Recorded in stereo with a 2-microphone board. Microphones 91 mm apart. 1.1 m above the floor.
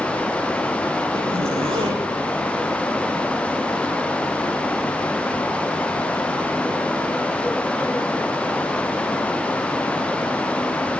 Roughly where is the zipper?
Right.